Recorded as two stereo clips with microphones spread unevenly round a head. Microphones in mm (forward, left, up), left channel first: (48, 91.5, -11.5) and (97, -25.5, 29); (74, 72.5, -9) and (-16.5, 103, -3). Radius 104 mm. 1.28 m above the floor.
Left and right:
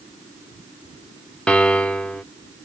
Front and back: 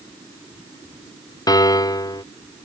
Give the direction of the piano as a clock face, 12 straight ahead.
11 o'clock.